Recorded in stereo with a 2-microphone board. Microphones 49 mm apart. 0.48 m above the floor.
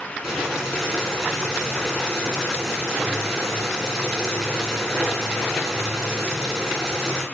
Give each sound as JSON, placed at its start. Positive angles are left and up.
{"t": 0.2, "sound": "boiling", "side_deg": -15, "distance_m": 5.0}